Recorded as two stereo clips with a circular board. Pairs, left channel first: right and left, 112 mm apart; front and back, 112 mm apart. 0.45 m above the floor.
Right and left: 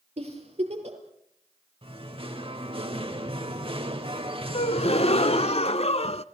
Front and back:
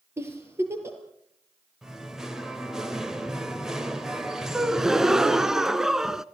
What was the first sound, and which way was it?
A giggle, 115° left.